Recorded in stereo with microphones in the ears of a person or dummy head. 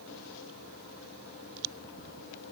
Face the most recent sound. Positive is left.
No sound to turn to.